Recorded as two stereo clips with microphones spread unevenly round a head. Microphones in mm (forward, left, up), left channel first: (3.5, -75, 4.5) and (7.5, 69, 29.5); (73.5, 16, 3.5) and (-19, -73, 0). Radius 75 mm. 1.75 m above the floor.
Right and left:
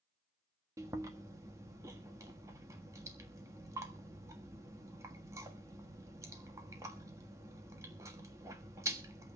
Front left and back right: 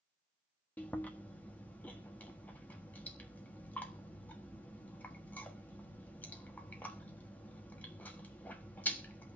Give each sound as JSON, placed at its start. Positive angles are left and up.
{"t": 0.8, "sound": "chewing", "azimuth_deg": 110, "distance_m": 1.3}